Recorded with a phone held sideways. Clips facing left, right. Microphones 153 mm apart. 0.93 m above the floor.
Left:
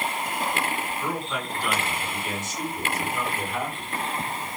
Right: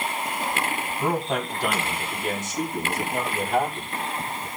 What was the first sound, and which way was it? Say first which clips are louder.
A man speaking: right 5 dB; 85° right.